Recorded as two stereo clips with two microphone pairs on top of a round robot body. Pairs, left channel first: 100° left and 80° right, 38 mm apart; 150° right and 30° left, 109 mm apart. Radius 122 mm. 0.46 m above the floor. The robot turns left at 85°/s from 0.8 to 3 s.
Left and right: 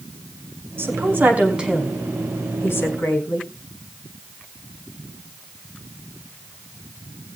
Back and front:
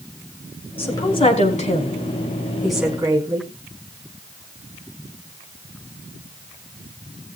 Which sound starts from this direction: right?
A woman speaking, at 0.8 s.